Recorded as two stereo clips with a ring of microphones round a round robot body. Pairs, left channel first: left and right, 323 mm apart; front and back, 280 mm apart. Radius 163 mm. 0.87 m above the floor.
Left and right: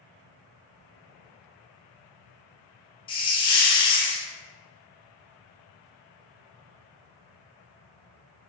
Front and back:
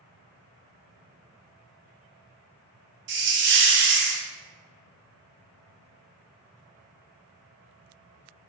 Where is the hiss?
160° left, 0.6 m.